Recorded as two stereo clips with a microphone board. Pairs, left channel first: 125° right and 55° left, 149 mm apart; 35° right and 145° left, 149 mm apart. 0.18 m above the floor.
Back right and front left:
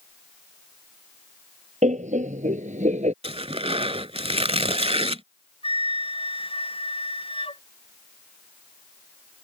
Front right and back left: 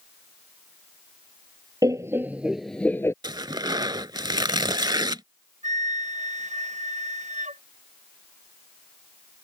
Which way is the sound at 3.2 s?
90° left.